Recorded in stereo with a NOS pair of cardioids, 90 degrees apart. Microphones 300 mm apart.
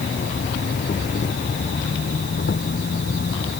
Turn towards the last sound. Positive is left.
turn(degrees=35)